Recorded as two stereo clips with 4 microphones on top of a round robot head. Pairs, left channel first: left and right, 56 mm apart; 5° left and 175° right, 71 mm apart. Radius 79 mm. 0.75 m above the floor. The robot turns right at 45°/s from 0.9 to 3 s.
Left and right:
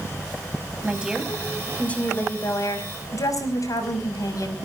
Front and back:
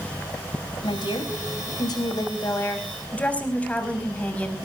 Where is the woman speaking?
20° right, 5.5 m; by 4.6 s 75° left, 5.5 m.